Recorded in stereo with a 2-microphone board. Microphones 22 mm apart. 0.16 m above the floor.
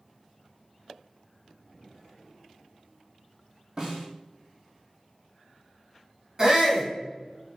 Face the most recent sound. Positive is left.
turn(degrees=-25)  # may be behind; listen again after turning